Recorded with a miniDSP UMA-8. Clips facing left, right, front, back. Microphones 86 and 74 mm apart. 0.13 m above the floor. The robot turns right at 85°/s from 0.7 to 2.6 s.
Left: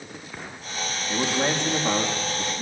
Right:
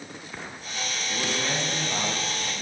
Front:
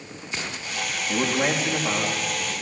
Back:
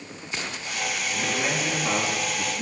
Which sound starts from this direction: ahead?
A man speaking, at 1.1 s.